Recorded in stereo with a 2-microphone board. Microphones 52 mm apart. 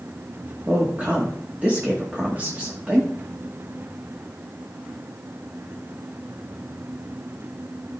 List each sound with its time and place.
0.7 s a woman speaking: 25° right (ahead or behind), 1.6 m